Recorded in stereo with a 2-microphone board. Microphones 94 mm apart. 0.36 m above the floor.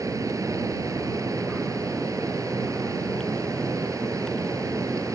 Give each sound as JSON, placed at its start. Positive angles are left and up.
{"t": 0.0, "sound": "running water", "side_deg": -35}